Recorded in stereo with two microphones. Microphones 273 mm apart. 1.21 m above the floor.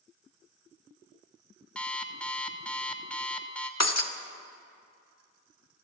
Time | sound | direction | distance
1.8 | an alarm clock | 5° left (ahead or behind) | 1.5 m
3.8 | breaking glass | 70° left (ahead or behind) | 1.4 m